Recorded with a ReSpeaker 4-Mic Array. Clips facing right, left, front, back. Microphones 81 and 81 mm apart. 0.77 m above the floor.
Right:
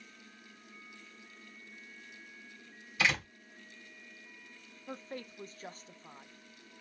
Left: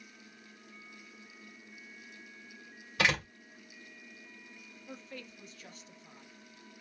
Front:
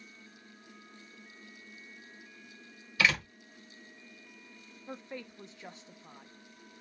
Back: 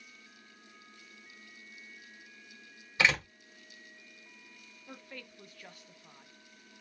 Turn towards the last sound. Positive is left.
turn(degrees=-60)